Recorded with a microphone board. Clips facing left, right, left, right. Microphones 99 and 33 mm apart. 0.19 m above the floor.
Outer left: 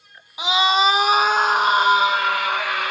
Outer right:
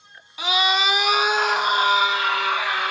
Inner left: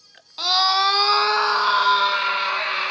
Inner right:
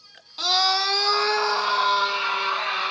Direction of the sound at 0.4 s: 20° left (ahead or behind).